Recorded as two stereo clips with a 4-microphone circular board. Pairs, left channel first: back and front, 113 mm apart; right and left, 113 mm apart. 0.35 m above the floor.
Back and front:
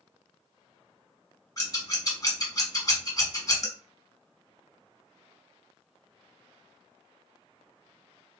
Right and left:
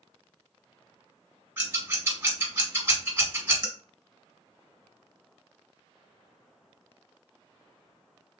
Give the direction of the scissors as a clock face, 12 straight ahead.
7 o'clock.